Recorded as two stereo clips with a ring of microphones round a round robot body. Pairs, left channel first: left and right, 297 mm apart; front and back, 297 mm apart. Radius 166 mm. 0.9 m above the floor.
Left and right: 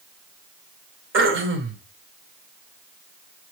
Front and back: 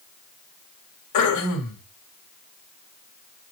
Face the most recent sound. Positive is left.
turn(degrees=-40)